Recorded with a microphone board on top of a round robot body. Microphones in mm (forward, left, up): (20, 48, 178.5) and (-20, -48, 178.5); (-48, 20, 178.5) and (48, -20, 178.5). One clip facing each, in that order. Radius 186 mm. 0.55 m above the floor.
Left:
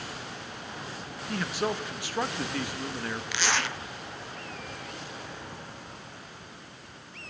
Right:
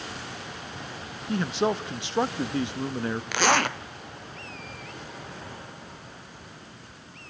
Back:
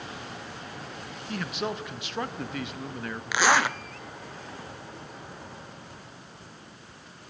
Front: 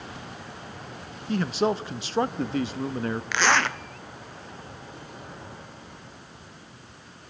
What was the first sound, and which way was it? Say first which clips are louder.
A man speaking: right 5 dB, front 8 dB; 60° right.